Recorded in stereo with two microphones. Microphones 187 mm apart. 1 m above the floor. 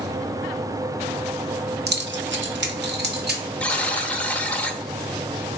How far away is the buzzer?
About 0.7 m.